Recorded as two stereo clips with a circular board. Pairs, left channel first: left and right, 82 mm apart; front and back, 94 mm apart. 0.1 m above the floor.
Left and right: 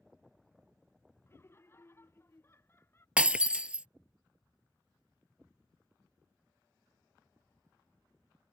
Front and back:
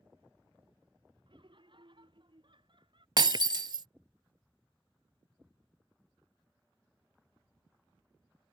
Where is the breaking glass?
165° right.